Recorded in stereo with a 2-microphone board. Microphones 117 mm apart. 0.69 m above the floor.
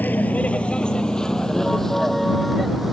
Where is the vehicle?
15° left (ahead or behind); by 2.9 s centre (ahead or behind).